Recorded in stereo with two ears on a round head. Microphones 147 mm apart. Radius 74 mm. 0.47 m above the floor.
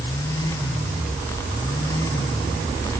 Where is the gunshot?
No gunshot in this recording.